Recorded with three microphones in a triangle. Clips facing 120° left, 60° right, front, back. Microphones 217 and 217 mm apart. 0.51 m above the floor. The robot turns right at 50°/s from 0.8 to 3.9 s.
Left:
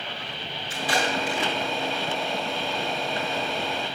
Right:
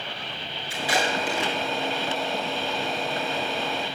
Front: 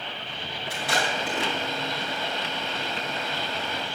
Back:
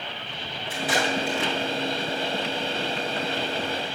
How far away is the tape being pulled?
About 8.5 m.